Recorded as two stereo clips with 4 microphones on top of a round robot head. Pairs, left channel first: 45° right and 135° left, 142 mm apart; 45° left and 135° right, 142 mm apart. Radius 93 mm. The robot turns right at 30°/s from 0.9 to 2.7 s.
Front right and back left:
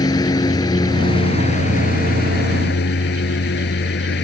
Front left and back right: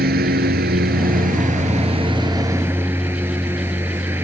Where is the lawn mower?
110° right; by 4.2 s 60° right.